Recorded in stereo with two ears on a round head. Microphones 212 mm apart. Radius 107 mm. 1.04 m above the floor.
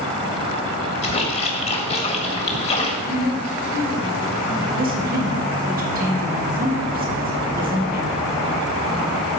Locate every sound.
1.0 s a splash: 30° left (ahead or behind), 1.9 m
3.0 s a woman speaking: 70° right (ahead or behind), 5 m
4.8 s a woman speaking: 40° right (ahead or behind), 2.0 m